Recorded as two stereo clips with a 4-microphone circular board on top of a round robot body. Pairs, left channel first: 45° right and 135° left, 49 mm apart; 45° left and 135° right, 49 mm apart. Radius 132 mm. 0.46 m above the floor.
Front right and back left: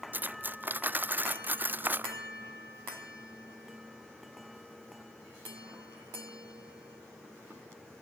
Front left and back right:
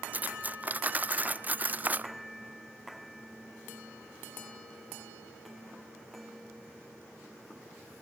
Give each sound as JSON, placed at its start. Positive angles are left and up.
{"t": 0.1, "sound": "cutlery clinking", "azimuth_deg": 180, "distance_m": 0.6}